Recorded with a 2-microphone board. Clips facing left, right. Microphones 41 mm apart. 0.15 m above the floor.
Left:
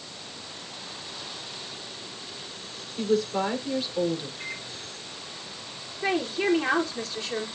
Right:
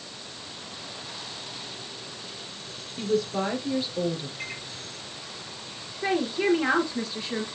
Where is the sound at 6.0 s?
10° right (ahead or behind), 3 m.